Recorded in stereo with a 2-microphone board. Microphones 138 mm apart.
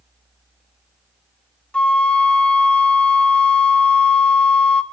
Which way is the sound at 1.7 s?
5° left (ahead or behind).